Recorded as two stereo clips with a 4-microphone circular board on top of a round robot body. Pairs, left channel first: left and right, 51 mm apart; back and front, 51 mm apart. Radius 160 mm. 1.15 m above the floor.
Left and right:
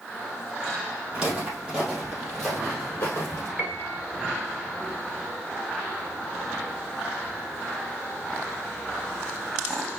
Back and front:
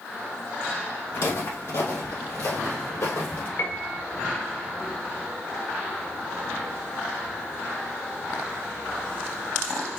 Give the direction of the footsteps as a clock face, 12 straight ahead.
5 o'clock.